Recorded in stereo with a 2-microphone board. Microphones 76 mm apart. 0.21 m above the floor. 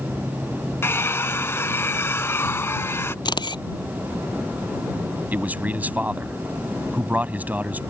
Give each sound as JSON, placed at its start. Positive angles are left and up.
{"t": 0.8, "sound": "a hair dryer", "side_deg": 35}
{"t": 3.2, "sound": "a camera shutter", "side_deg": 80}
{"t": 5.3, "sound": "a man speaking", "side_deg": -20}